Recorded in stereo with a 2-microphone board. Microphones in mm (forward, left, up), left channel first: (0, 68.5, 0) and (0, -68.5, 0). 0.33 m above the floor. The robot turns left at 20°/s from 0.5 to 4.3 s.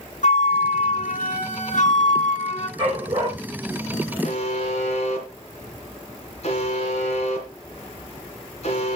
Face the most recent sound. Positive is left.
turn(degrees=55)  # may be behind; listen again after turning